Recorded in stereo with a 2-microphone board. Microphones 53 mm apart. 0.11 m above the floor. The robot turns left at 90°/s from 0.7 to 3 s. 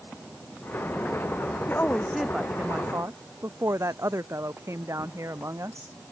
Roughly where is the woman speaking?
Ahead left.